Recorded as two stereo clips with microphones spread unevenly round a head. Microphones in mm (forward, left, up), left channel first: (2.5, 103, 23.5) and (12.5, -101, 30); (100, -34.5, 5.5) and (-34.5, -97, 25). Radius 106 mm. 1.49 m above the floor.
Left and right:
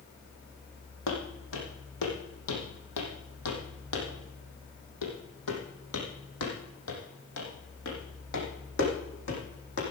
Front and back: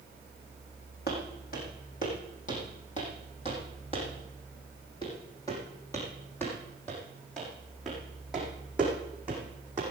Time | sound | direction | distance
1.1 | footsteps | 70° left | 5 m